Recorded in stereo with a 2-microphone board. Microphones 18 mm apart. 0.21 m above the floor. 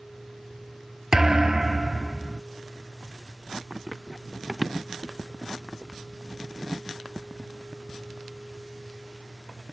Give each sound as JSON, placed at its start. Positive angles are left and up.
{"t": 1.1, "sound": "a thud", "side_deg": -35}
{"t": 3.7, "sound": "running footsteps", "side_deg": -35}